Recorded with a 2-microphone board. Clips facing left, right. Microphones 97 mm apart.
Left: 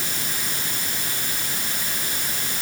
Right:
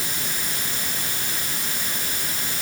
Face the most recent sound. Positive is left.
No sound to turn to.